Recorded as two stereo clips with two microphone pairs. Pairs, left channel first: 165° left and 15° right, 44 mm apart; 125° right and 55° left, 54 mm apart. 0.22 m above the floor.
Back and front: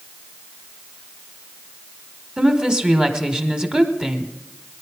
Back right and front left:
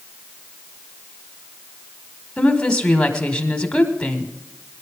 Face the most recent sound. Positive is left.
turn(degrees=-70)